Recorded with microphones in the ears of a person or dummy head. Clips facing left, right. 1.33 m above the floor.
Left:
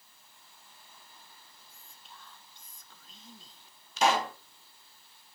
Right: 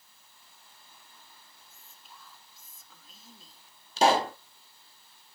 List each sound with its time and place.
1.7 s whispering: centre (ahead or behind), 0.7 m
4.0 s a pop: 20° right (ahead or behind), 0.5 m